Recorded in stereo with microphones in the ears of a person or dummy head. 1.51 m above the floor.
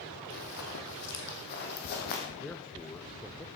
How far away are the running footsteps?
About 3 m.